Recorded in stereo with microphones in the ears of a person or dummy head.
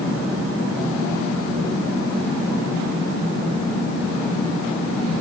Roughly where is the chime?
I don't hear a chime.